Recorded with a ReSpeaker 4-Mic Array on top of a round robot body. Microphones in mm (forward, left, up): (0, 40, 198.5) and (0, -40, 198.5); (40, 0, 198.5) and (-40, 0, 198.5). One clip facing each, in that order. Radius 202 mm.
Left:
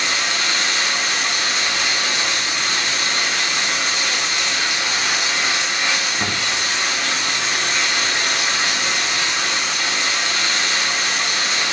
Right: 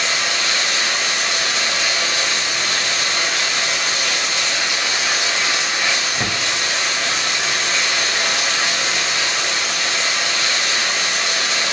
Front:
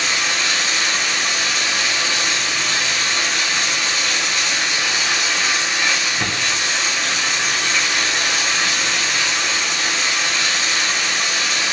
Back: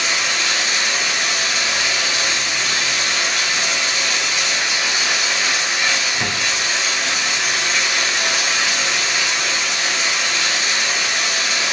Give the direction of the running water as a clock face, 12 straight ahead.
3 o'clock.